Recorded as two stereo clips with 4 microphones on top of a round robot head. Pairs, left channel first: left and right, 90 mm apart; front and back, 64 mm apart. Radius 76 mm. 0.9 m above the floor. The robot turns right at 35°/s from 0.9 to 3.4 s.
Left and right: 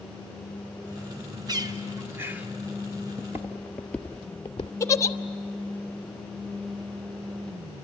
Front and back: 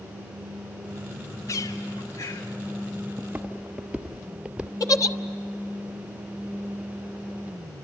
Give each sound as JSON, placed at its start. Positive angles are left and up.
{"t": 1.5, "sound": "a bird", "azimuth_deg": -50, "distance_m": 2.5}
{"t": 3.2, "sound": "footsteps", "azimuth_deg": -120, "distance_m": 0.9}
{"t": 4.8, "sound": "a giggle", "azimuth_deg": 30, "distance_m": 1.2}